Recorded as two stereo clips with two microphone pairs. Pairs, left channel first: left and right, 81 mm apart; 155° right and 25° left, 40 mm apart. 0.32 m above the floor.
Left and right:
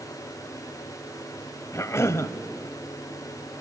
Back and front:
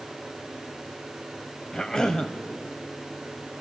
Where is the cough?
135° left, 1.3 m.